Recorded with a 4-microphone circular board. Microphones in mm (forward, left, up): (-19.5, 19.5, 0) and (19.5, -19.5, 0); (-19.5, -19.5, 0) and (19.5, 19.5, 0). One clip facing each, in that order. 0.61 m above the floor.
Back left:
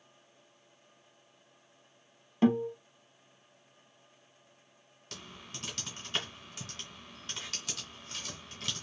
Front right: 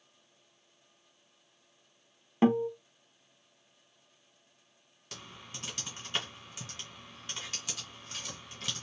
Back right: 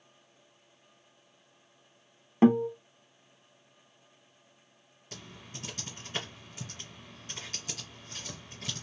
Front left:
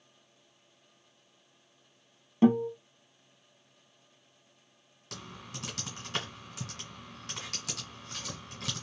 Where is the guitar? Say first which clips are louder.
Front right 1 dB, back right 1 dB; 100° right, 0.7 m.